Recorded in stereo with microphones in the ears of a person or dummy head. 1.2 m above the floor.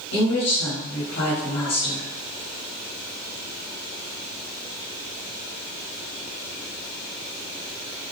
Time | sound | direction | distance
0.1 | a woman speaking | 75° left (ahead or behind) | 3 m